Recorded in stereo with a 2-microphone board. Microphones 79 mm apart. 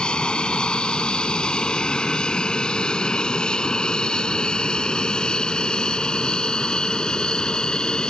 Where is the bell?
I don't hear a bell.